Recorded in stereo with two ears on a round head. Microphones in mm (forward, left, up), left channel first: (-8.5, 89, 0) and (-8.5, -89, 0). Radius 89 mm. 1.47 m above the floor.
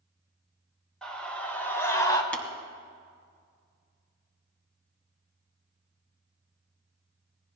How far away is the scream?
About 4 m.